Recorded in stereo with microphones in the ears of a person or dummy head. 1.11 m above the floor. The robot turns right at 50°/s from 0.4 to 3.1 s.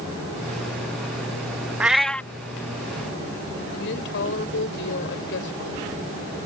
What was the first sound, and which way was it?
A cat meowing, 10° right (ahead or behind).